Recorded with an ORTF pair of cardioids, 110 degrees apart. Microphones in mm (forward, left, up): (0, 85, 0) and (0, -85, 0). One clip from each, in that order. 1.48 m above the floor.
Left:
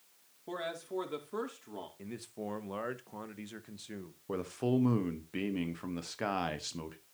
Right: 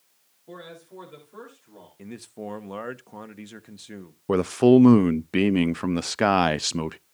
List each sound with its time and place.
0.5 s a man speaking: 45° left, 4.5 m
2.0 s a man speaking: 25° right, 1.1 m
4.3 s a man speaking: 65° right, 0.5 m